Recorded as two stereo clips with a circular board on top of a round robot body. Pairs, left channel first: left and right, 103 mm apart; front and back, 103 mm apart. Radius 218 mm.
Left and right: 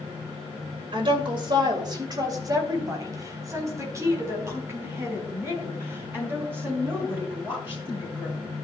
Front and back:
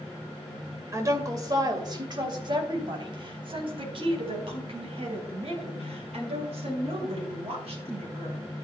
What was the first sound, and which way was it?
A woman speaking, 120° right.